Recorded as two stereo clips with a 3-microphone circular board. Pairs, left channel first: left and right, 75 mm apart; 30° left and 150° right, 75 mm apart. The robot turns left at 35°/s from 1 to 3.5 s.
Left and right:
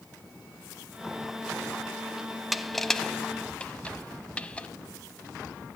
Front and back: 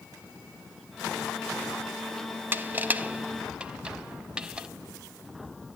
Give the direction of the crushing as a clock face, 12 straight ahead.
6 o'clock.